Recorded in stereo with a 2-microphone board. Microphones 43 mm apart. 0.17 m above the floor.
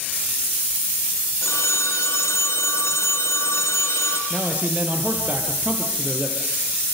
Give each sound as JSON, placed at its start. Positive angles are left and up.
{"t": 1.4, "sound": "a phone ringing", "side_deg": 75, "distance_m": 2.5}
{"t": 4.3, "sound": "a man speaking", "side_deg": -35, "distance_m": 4.0}